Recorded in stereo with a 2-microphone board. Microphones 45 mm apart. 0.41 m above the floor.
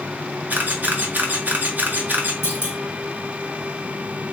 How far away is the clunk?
About 1.3 m.